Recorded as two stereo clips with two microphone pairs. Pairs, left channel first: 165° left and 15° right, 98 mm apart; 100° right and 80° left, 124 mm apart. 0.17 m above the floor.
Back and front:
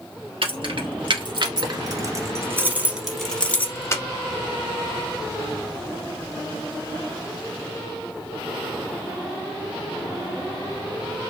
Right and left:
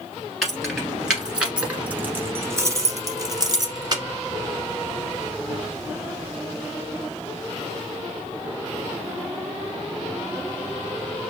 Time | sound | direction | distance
0.4 | keys jangling | 10° right | 1.6 m